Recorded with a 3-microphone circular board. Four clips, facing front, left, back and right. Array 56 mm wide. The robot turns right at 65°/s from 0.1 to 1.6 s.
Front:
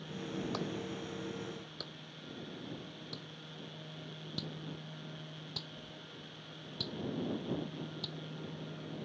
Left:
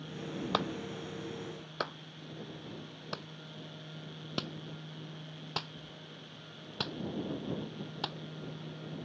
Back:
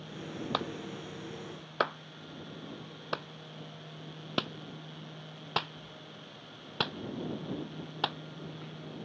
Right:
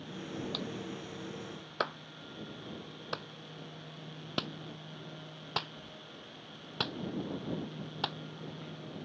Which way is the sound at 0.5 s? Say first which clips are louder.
Left 5 dB, back 3 dB; 125° left.